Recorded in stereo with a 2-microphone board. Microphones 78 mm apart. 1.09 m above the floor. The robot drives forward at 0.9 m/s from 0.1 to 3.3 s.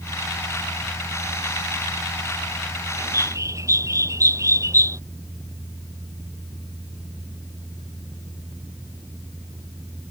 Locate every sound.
3.0 s a bird: 40° right (ahead or behind)